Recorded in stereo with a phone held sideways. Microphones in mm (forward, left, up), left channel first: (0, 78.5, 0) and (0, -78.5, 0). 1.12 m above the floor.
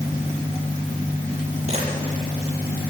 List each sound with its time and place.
1.7 s a camera shutter: 40° right (ahead or behind), 8 m